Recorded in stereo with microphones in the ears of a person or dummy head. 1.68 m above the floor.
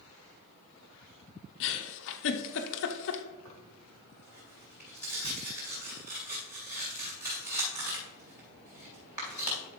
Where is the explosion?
No explosion in this recording.